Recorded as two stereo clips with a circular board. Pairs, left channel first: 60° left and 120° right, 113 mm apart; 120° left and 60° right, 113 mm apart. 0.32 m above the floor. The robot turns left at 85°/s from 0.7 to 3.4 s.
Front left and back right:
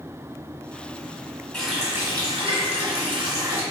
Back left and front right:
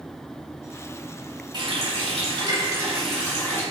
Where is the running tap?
20° right, 1.5 m; by 3.6 s straight behind, 1.5 m.